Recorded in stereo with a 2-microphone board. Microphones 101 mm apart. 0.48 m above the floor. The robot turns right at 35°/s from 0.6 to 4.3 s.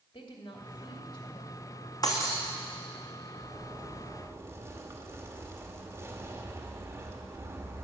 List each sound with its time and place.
0.1 s a woman speaking: 100° left, 2.5 m; by 1.6 s 135° left, 2.5 m
2.0 s breaking glass: 35° left (ahead or behind), 2.5 m; by 2.4 s 25° left (ahead or behind), 2.5 m
3.4 s a zipper: 170° right, 1.5 m; by 7.8 s 135° right, 1.5 m